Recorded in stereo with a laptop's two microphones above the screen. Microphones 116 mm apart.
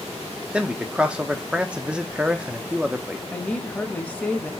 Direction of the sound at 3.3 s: 10° left (ahead or behind).